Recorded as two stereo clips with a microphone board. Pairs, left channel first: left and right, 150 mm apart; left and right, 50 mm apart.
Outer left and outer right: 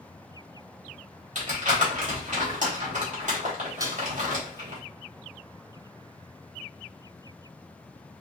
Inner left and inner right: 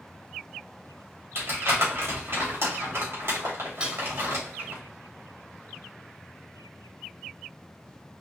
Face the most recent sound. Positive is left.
turn(degrees=-25)  # may be behind; listen again after turning